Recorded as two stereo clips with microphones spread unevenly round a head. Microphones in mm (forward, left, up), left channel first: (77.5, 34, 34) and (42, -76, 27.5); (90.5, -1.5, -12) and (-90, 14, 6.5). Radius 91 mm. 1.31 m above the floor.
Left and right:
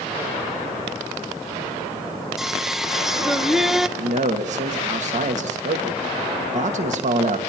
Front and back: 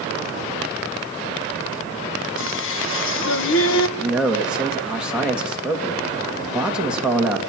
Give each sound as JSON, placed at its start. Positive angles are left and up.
{"t": 2.4, "sound": "singing", "azimuth_deg": -20, "distance_m": 1.4}
{"t": 4.0, "sound": "a man speaking", "azimuth_deg": -100, "distance_m": 2.5}